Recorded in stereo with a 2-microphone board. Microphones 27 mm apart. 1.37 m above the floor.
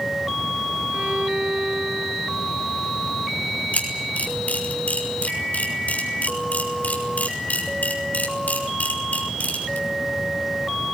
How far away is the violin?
About 9 m.